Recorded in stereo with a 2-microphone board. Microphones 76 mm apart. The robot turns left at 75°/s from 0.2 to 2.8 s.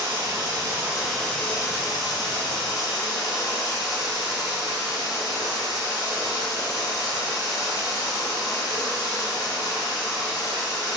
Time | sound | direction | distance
0.0 | running water | 115° right | 1.1 m